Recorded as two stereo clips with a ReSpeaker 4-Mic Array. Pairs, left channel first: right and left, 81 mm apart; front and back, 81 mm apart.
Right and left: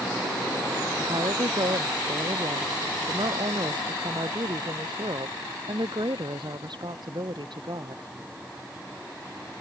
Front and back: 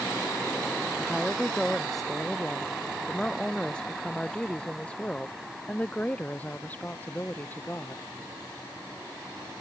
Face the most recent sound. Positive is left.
turn(degrees=65)